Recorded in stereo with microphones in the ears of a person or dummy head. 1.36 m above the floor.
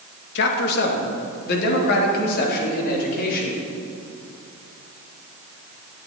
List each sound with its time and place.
0.3 s a man speaking: 60° left (ahead or behind), 2.5 m; by 3.6 s 50° left (ahead or behind), 5 m